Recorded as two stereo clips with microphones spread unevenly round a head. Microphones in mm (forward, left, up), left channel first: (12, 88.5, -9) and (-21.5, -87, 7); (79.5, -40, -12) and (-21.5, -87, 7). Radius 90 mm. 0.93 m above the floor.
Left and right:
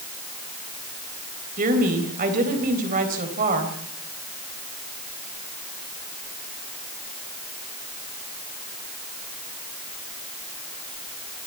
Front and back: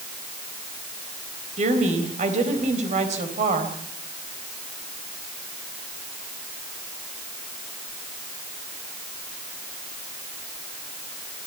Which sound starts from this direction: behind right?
A woman speaking, at 1.6 s.